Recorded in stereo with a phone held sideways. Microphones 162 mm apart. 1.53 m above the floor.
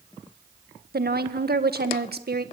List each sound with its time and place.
0.9 s a woman speaking: 75° right (ahead or behind), 1.7 m